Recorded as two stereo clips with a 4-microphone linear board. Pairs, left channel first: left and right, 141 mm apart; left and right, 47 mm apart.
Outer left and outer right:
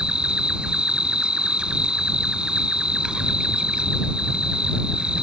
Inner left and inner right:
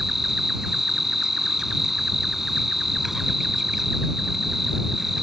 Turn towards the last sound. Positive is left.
turn(degrees=-5)  # may be behind; listen again after turning